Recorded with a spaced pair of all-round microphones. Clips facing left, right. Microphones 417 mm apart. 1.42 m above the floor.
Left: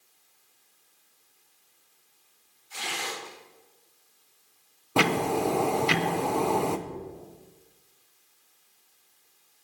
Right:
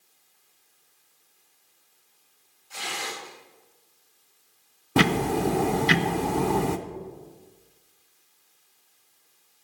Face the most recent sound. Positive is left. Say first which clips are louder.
# right 3 dB
turn(degrees=-30)  # may be behind; listen again after turning